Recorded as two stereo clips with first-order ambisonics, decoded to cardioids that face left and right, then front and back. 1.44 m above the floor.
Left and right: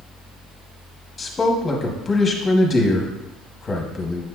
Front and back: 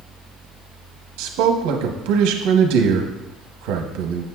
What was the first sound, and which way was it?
A man speaking, 165° left.